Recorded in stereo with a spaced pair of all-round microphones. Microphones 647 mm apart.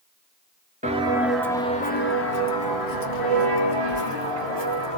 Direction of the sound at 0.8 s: 10° right (ahead or behind).